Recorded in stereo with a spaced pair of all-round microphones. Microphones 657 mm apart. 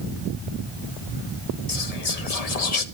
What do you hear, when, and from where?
1.7 s whispering: 75° left (ahead or behind), 1.1 m